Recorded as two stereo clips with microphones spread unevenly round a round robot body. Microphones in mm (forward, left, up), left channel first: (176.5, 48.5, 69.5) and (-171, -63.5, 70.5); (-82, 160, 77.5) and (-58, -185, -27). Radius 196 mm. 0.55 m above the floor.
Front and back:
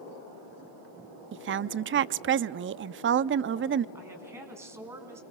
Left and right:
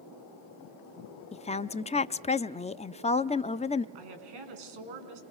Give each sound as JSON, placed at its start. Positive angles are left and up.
{"t": 1.3, "sound": "a woman speaking", "azimuth_deg": -175, "distance_m": 0.6}
{"t": 4.0, "sound": "a woman speaking", "azimuth_deg": -80, "distance_m": 4.5}